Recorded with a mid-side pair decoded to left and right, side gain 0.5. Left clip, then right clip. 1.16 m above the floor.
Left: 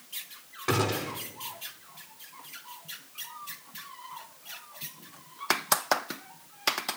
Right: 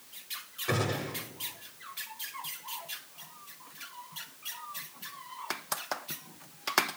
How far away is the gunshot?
About 7 m.